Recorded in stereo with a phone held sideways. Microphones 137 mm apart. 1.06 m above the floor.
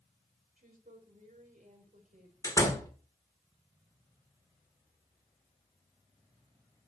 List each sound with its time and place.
0.6 s a woman speaking: 70° right (ahead or behind), 3 m
2.4 s a door slam: 25° left (ahead or behind), 1.9 m